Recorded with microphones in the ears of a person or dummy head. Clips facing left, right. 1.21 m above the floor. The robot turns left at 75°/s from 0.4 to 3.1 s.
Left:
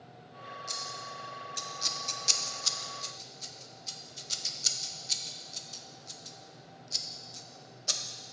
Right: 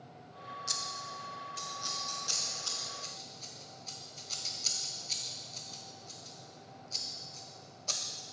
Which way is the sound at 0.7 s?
10° right (ahead or behind).